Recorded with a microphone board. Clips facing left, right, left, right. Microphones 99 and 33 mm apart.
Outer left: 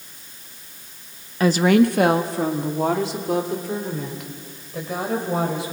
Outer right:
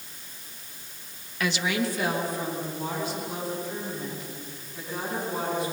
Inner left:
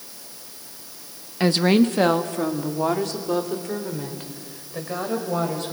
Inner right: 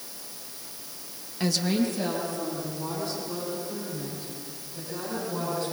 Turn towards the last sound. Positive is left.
turn(degrees=85)